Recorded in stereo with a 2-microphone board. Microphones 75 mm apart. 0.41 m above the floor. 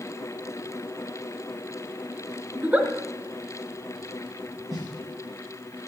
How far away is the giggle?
About 1.6 m.